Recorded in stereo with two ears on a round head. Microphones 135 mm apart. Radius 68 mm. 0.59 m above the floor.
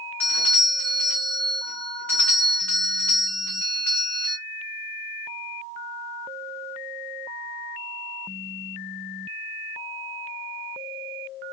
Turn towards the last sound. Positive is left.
turn(degrees=10)  # may be behind; listen again after turning